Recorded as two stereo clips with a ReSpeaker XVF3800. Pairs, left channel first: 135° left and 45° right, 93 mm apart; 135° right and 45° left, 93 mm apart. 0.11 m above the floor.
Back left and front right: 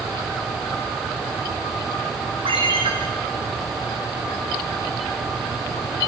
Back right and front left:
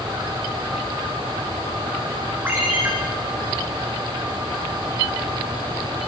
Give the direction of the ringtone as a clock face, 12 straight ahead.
1 o'clock.